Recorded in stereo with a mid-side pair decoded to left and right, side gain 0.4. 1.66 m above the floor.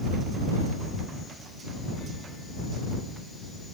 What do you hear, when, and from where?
Only background noise.